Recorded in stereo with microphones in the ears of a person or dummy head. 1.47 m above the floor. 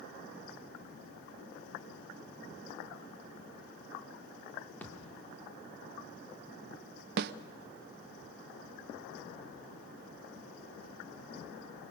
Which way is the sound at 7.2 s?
60° right (ahead or behind).